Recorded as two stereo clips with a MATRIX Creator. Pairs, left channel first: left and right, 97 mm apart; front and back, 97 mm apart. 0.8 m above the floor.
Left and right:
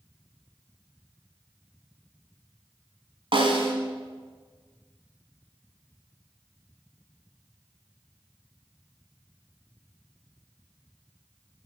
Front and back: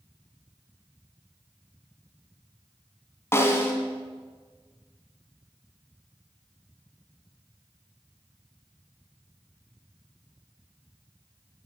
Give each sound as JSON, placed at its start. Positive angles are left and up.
{"t": 3.3, "sound": "a snare drum", "azimuth_deg": -65, "distance_m": 1.8}